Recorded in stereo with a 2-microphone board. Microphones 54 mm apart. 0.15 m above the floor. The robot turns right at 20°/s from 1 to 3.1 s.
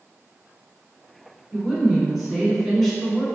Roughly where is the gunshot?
No gunshot in this recording.